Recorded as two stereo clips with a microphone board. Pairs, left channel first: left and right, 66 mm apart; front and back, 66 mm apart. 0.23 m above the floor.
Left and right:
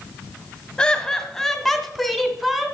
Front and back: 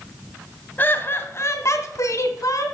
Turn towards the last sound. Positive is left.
turn(degrees=-5)